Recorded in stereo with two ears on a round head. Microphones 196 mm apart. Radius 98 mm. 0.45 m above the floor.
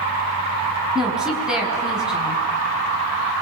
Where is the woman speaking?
5° right (ahead or behind), 5.5 m.